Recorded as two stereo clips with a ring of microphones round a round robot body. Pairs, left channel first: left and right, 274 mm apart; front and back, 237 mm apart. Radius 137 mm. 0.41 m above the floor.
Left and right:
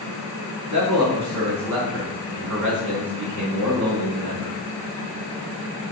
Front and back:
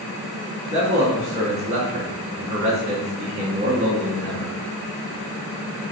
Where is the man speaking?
115° right, 3.5 m.